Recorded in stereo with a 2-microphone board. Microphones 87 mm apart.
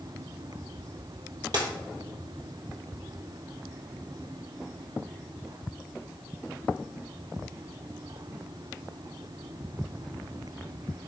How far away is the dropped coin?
About 1.1 m.